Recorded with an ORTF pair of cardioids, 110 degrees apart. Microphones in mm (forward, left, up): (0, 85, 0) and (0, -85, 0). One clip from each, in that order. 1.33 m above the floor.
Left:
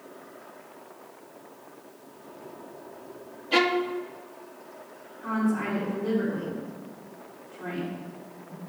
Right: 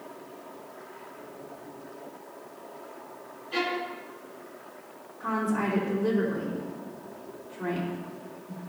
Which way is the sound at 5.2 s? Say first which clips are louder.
Right 1 dB; 30° right.